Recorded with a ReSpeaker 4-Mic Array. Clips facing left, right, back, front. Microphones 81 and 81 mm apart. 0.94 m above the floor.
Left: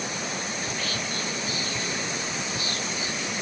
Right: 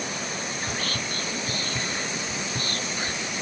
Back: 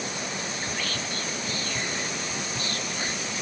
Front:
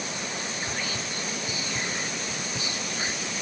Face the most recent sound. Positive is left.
turn(degrees=-75)